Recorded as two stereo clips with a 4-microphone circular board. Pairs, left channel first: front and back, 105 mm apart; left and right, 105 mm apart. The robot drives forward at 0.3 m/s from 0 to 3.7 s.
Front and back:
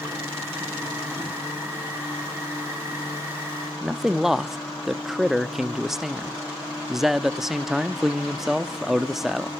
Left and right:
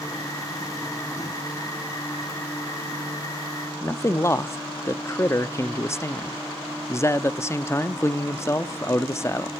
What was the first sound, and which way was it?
A man speaking, 100° left.